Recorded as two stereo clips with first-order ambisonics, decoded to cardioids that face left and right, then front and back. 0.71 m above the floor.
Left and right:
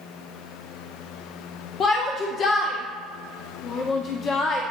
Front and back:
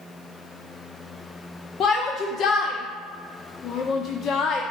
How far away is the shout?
About 0.6 m.